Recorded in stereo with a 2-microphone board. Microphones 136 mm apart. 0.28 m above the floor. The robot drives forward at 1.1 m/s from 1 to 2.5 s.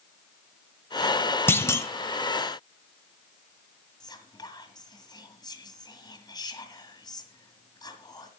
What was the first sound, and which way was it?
A clunk, 15° left (ahead or behind).